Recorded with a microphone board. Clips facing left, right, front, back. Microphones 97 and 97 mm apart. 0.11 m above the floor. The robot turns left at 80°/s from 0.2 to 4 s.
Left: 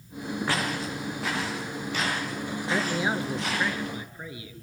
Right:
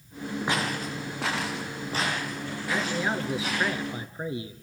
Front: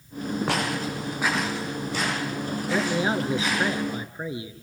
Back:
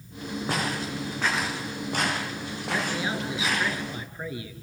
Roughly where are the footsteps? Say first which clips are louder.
Right 1 dB, back 1 dB; ahead.